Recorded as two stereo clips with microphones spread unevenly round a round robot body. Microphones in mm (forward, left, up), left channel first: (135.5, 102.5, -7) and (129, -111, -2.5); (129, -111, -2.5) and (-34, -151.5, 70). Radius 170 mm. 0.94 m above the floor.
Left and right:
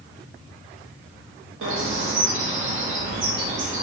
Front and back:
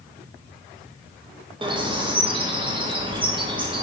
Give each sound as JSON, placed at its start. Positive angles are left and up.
{"t": 1.6, "sound": "a bird", "azimuth_deg": -90, "distance_m": 0.7}